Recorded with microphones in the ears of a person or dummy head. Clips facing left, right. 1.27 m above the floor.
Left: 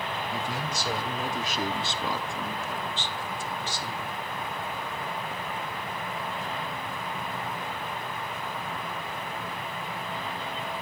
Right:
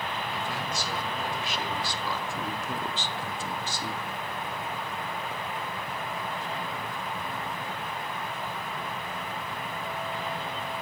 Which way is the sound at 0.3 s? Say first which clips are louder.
Left 1 dB; 60° left (ahead or behind).